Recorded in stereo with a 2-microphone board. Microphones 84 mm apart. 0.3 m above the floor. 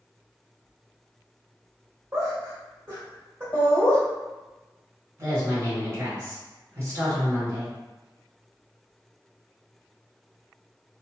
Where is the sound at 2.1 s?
35° right (ahead or behind), 1.4 m.